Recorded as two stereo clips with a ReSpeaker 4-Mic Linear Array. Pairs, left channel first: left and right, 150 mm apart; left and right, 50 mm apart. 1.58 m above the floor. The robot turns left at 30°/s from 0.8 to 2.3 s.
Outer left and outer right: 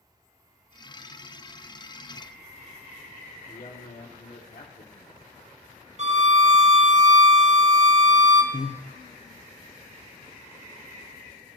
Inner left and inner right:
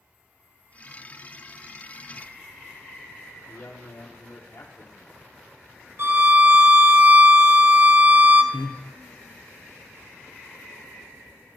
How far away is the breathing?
About 0.7 m.